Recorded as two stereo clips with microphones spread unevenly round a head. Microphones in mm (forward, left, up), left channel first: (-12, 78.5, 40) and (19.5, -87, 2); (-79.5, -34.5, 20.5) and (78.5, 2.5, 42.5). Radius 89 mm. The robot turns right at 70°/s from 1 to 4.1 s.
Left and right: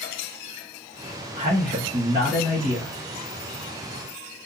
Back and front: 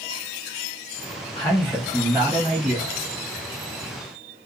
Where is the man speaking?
120° right, 1.4 m; by 2.9 s 10° right, 1.4 m.